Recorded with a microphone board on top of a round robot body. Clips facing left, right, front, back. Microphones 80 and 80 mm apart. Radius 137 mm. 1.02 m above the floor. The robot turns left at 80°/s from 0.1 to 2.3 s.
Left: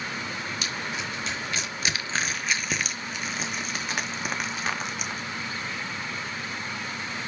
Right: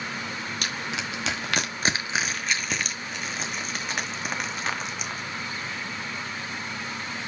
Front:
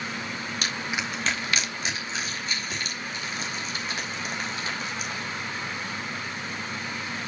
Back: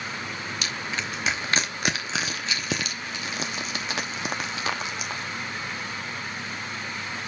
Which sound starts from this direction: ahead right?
Crushing, at 0.6 s.